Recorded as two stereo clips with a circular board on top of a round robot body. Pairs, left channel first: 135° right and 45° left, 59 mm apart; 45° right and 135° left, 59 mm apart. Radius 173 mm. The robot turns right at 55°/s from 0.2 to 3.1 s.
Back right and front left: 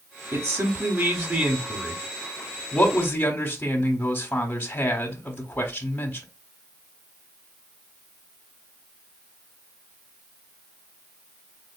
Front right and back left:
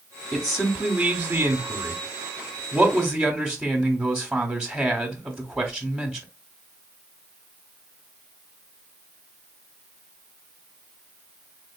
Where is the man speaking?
50° left, 1.2 m; by 6.3 s 155° right, 1.2 m.